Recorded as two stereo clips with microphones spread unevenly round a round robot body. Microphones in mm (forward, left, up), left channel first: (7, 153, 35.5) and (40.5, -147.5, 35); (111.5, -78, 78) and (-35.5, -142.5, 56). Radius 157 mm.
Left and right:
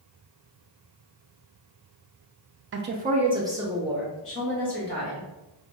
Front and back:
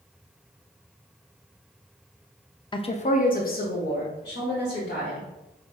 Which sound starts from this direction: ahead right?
A woman speaking, at 2.7 s.